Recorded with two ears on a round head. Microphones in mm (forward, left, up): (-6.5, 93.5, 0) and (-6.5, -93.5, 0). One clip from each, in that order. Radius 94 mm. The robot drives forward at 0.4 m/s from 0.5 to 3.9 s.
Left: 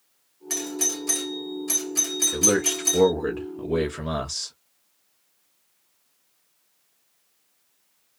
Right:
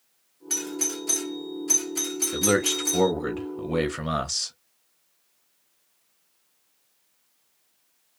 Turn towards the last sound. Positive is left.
turn(degrees=-20)  # may be behind; listen again after turning